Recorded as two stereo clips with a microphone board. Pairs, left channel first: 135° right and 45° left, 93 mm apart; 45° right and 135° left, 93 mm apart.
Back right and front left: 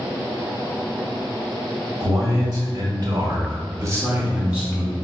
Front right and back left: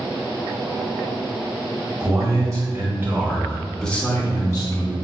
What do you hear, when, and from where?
2.0 s a man speaking: 90° left, 1.6 m; by 4.9 s 45° right, 1.0 m